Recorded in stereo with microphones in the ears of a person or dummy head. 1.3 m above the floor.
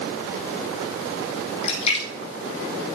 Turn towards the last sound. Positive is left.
turn(degrees=40)  # may be behind; listen again after turning